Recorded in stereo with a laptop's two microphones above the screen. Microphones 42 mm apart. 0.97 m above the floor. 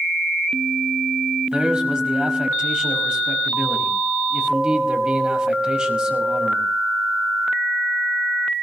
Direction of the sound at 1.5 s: 25° right (ahead or behind).